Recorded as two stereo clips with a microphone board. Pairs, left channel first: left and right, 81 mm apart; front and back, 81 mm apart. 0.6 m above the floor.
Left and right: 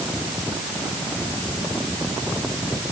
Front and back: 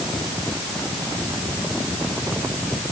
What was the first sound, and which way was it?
Only background noise.